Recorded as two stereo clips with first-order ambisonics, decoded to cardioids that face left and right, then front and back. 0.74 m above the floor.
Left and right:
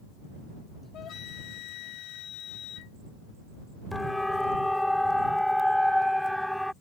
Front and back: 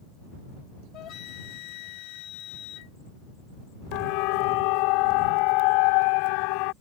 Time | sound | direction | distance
0.9 | a flute | 40° left | ?
3.9 | a siren | 5° left | ?